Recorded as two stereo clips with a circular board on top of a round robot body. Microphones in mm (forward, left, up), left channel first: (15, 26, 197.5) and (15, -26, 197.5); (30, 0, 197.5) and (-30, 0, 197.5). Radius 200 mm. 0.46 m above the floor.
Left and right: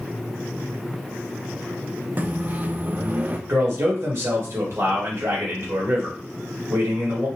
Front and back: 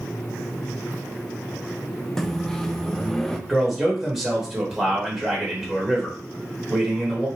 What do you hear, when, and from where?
2.2 s a microwave: 80° right, 0.6 m
3.5 s a man speaking: 95° right, 1.5 m